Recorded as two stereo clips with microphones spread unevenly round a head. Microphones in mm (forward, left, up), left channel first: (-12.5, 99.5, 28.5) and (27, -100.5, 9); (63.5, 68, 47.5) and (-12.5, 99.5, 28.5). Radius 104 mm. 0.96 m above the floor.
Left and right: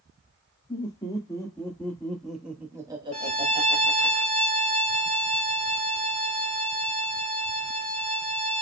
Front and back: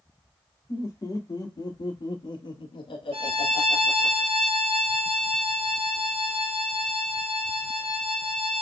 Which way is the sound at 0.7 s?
30° left.